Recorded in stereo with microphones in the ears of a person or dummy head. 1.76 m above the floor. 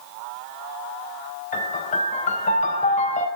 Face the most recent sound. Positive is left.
turn(degrees=45)  # may be behind; listen again after turning